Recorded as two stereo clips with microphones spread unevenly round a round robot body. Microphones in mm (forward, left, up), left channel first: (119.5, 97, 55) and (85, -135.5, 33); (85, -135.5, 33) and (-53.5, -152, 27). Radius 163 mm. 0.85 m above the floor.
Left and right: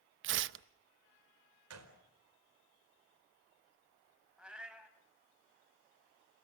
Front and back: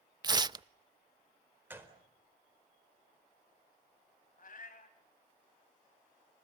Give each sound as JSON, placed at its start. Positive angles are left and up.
{"t": 0.2, "sound": "tearing paper", "azimuth_deg": -115, "distance_m": 0.6}
{"t": 1.7, "sound": "a gunshot", "azimuth_deg": -100, "distance_m": 4.5}
{"t": 4.4, "sound": "a cat meowing", "azimuth_deg": -10, "distance_m": 3.5}